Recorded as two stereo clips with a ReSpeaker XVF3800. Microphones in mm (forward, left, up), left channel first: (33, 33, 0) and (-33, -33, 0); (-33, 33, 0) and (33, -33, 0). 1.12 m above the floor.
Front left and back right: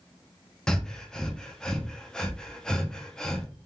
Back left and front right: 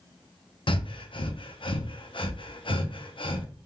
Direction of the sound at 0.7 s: 125° left.